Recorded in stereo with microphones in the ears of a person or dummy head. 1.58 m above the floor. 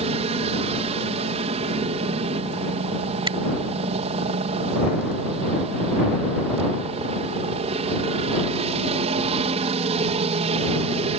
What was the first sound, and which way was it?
A helicopter, 35° right (ahead or behind).